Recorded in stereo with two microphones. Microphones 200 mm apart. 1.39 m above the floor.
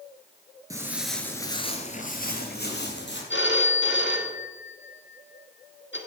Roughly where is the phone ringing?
Left.